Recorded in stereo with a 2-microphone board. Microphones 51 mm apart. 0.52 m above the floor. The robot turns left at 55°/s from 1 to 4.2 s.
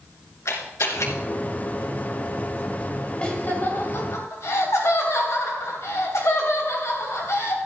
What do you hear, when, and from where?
0.5 s a camera shutter: 70° left (ahead or behind), 3 m; by 1.1 s 75° left (ahead or behind), 3 m
3.2 s laughter: 155° left, 2.5 m; by 7.6 s 105° left, 2.5 m